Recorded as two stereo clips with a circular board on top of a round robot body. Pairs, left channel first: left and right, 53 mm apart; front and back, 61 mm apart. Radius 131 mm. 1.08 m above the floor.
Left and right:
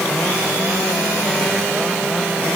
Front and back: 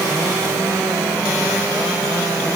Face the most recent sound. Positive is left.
No sound to turn to.